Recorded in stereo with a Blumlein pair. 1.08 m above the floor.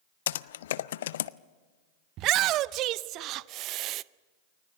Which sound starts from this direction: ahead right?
A shout, at 2.2 s.